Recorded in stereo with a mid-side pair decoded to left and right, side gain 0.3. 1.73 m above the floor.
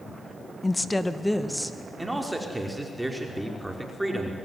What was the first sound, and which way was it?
A woman speaking, 25° left.